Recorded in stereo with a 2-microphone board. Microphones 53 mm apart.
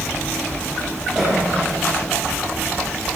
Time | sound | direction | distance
1.1 | a cough | 25° right (ahead or behind) | 5.5 m